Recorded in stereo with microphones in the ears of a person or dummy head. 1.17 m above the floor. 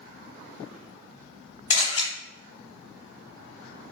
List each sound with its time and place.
1.7 s a camera shutter: 20° left (ahead or behind), 1.1 m